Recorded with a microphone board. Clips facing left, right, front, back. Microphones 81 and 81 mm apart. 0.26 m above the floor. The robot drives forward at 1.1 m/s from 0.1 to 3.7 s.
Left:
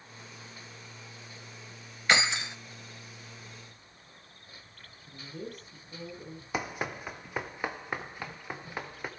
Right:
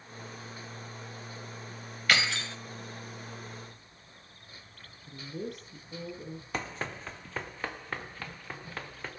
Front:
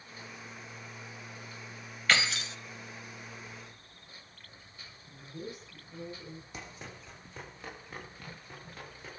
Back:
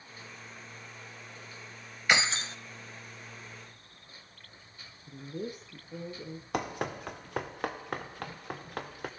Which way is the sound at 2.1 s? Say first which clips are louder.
Left 2 dB, back 1 dB; 125° left.